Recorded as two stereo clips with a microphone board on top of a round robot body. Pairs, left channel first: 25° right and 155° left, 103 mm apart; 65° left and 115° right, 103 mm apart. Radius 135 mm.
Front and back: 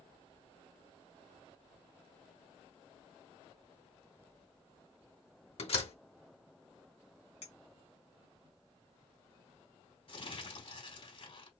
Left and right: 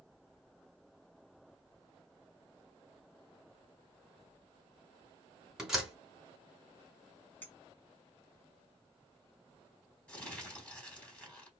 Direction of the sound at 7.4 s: 5° right.